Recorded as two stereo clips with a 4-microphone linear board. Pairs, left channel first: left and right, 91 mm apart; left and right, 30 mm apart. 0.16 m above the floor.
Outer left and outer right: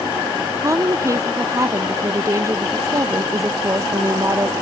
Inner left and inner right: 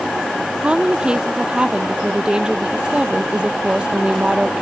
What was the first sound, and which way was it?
A woman speaking, 35° right (ahead or behind).